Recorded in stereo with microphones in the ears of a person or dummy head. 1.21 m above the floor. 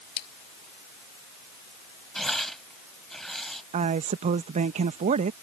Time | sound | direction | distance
0.2 | a splash | 55° left (ahead or behind) | ?
2.1 | tearing paper | centre (ahead or behind) | ?
3.7 | a woman speaking | 40° right (ahead or behind) | ?